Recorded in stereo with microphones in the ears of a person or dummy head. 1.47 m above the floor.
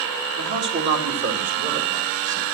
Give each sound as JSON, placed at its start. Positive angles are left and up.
{"t": 0.4, "sound": "a man speaking", "side_deg": -55, "distance_m": 3.5}